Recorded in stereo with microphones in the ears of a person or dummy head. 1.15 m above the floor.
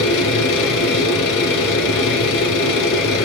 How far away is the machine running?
About 2.5 m.